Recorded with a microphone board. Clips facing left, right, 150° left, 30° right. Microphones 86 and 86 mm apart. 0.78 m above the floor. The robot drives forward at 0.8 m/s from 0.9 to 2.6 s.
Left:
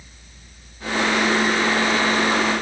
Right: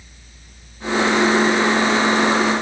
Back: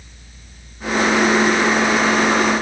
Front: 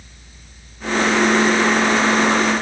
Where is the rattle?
I don't hear a rattle.